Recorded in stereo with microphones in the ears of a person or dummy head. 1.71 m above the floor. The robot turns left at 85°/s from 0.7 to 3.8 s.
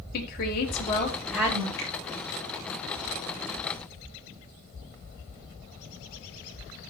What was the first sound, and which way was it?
A woman speaking, 60° left.